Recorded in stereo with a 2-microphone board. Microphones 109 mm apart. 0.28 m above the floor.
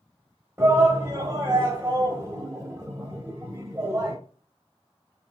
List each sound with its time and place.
0.6 s a shout: 25° right (ahead or behind), 1.0 m